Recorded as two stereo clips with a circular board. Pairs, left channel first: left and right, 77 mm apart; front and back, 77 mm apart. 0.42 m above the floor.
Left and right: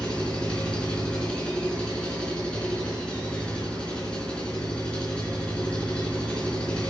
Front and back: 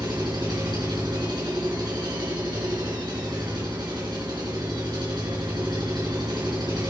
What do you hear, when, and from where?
0.0 s an engine running: 165° left, 4 m